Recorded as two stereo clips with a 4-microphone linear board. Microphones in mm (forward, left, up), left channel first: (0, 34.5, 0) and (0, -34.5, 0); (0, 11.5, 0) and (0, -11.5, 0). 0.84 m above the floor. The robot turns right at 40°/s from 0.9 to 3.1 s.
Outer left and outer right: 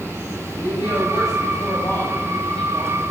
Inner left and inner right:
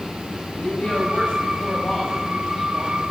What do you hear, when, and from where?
0.5 s a woman speaking: 95° left, 5.5 m; by 3.1 s 175° right, 5.5 m